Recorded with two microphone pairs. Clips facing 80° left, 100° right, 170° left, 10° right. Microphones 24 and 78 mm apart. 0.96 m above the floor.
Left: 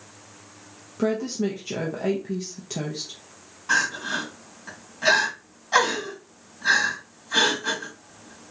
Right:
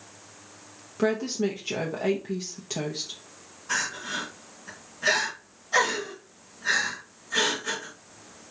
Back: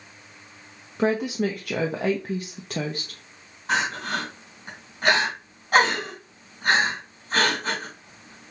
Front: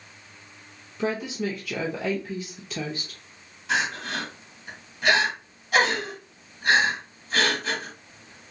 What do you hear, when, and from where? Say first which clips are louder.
1.0 s a woman speaking: left 1 dB, back 5 dB; 175° left, 0.7 m
3.7 s crying: left 6 dB, back 2 dB; 125° left, 2.5 m